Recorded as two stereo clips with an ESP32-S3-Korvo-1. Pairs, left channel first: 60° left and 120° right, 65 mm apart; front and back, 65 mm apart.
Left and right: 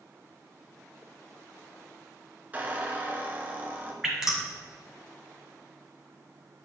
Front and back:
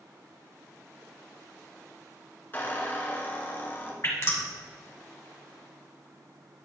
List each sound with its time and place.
2.5 s a squeak: 55° right, 1.5 m
4.0 s dripping: 40° right, 2 m